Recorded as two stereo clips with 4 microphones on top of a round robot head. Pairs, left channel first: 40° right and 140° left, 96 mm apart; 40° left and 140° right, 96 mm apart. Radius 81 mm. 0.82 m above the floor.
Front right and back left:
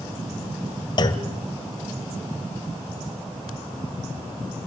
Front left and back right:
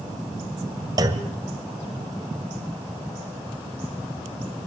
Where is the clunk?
85° right, 1.6 m.